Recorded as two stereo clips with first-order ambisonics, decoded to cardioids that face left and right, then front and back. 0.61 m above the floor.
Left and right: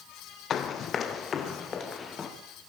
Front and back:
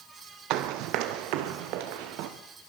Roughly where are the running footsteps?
Behind left.